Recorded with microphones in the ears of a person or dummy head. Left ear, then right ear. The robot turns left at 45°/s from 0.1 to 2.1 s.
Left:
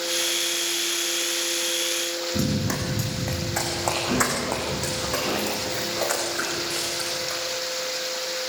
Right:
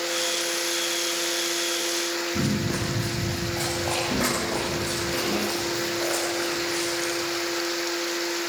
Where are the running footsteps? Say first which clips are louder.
Even; 55° left (ahead or behind), 5 m; by 7.4 s 45° left (ahead or behind), 8 m.